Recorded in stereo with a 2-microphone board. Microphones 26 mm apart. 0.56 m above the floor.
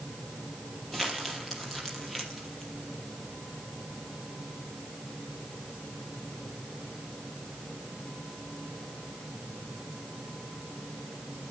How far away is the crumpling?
About 4.5 m.